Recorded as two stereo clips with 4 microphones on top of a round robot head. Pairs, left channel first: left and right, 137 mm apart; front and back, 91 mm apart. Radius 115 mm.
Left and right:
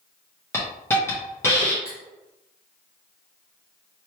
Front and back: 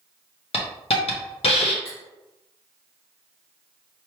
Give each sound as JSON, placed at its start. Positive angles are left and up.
{"t": 0.5, "sound": "a hiss", "azimuth_deg": 15, "distance_m": 0.8}
{"t": 1.9, "sound": "cutlery clinking", "azimuth_deg": -15, "distance_m": 1.4}